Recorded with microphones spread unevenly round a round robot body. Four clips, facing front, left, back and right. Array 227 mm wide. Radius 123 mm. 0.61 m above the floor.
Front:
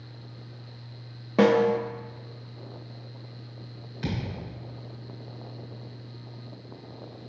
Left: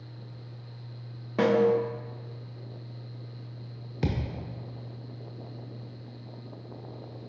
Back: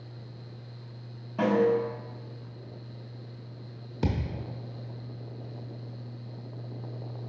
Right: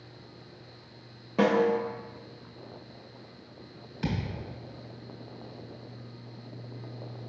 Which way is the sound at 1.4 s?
Straight ahead.